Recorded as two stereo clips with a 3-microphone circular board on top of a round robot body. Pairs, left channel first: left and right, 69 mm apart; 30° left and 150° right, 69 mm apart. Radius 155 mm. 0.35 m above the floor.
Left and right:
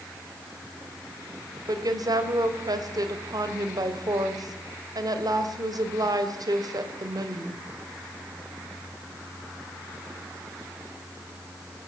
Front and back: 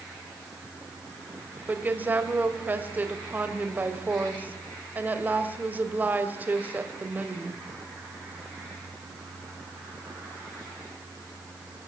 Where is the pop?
I don't hear a pop.